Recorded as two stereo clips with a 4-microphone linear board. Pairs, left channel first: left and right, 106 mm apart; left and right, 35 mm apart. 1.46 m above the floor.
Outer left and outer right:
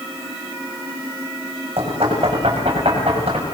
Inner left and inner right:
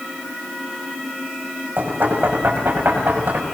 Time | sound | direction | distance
1.8 | knocking | 65° right (ahead or behind) | 7.5 m